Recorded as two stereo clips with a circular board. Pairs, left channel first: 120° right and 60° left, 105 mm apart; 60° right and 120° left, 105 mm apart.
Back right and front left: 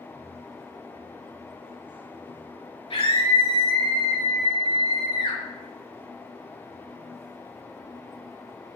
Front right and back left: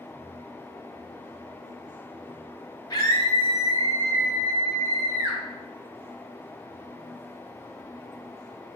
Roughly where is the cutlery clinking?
I don't hear cutlery clinking.